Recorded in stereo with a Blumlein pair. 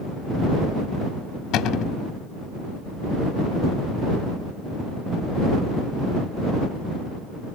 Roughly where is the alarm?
No alarm in this recording.